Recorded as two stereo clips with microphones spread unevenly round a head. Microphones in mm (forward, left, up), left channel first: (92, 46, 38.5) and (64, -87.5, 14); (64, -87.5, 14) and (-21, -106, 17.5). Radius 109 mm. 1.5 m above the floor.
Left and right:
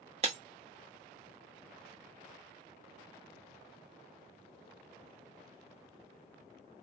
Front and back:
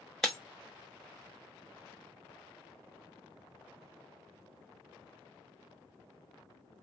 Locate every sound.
0.2 s breaking glass: 75° right, 1.0 m